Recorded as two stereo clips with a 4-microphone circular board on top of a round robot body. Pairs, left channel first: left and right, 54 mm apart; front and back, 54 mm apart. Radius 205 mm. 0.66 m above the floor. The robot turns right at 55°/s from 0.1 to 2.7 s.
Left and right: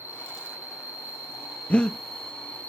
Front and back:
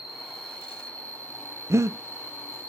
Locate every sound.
0.0 s an insect: 100° right, 2 m; by 2.7 s 40° left, 2 m
1.7 s breathing: 155° left, 0.9 m; by 2.0 s 170° left, 0.9 m